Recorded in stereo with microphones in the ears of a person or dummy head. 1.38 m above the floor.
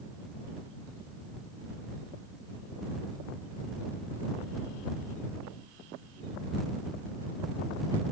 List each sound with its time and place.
Only background noise.